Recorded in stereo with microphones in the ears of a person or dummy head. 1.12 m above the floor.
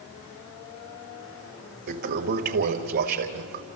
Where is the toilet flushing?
50° right (ahead or behind), 1.7 m.